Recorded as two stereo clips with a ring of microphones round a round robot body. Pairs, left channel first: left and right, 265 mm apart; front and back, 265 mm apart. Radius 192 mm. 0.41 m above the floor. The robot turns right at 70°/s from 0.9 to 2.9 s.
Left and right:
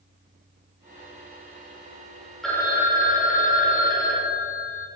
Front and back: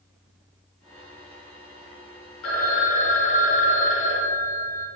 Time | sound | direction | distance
2.4 | a phone ringing | straight ahead | 0.8 m